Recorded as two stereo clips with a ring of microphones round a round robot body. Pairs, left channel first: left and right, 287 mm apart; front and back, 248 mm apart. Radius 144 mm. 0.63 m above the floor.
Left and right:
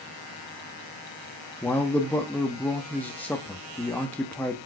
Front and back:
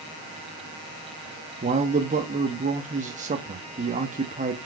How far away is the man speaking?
About 0.9 m.